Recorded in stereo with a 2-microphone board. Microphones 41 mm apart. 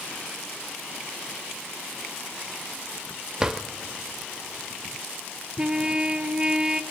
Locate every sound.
3.4 s a drawer: 15° right (ahead or behind), 0.7 m
5.6 s a trumpet: 20° right (ahead or behind), 0.8 m